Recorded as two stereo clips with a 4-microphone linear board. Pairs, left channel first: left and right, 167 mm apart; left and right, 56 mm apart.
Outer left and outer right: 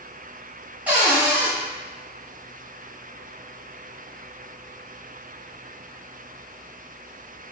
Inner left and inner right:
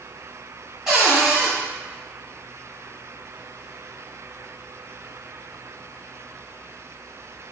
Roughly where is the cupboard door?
Centre.